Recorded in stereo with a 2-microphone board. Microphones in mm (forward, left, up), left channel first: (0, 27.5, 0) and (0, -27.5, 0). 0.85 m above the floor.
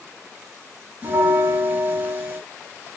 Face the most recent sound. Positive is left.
turn(degrees=-30)  # may be behind; listen again after turning